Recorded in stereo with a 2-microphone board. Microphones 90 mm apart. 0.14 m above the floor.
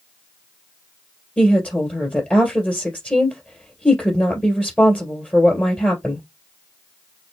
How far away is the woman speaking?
About 2 m.